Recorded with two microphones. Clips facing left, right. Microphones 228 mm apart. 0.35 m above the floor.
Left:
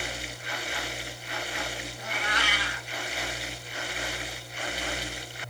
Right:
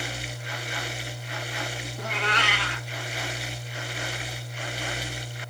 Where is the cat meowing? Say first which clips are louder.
Right 5 dB; 70° right (ahead or behind), 0.5 m.